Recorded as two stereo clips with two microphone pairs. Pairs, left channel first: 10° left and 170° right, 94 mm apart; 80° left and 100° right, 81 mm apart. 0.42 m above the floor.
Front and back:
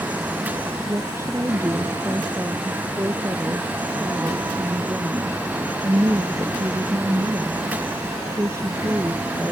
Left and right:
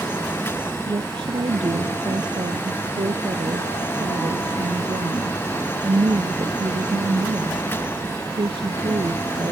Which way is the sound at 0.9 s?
110° right.